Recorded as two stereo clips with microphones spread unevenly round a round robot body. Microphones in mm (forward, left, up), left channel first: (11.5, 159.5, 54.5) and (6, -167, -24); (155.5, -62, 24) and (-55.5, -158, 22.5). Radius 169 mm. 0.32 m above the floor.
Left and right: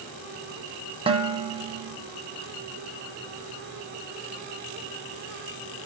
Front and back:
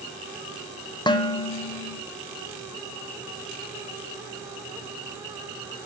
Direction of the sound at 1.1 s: 40° right.